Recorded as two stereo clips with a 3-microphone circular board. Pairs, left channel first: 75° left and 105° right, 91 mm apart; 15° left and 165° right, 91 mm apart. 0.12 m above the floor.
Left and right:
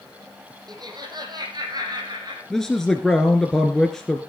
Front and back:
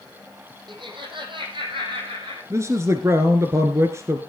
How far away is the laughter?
About 4.5 m.